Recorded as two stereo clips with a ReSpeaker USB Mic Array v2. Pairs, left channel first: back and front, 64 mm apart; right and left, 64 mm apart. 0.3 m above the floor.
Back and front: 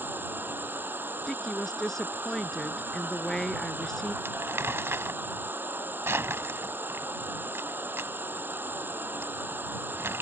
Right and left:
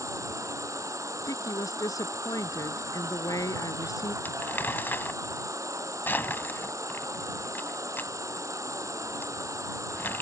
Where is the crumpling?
40° right.